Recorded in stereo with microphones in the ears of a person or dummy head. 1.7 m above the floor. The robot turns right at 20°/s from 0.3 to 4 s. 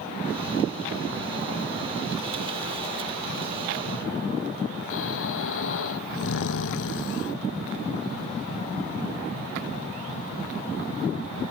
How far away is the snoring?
About 0.9 m.